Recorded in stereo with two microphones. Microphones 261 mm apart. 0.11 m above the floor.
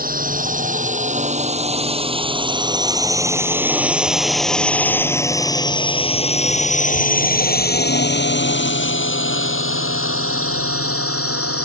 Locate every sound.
0.0 s a drone: 35° right (ahead or behind); by 11.7 s 65° left (ahead or behind)